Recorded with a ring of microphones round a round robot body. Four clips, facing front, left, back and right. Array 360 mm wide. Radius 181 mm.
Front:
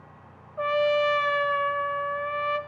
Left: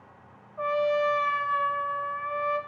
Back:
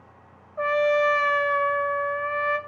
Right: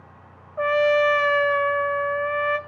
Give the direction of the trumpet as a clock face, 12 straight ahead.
4 o'clock.